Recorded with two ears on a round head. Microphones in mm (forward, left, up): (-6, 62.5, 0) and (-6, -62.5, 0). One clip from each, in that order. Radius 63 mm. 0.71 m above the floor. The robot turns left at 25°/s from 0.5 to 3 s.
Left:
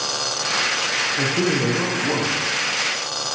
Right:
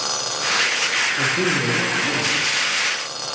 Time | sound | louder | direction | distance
1.2 | a man speaking | right 1 dB | 70° left | 1.1 m